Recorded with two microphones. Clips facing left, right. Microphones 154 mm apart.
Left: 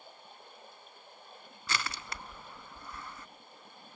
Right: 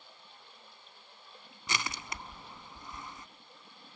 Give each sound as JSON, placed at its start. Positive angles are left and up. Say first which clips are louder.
{"t": 0.0, "sound": "running water", "louder": "left 5 dB", "side_deg": 45, "distance_m": 3.5}
{"t": 1.7, "sound": "crushing", "louder": "even", "side_deg": -20, "distance_m": 0.6}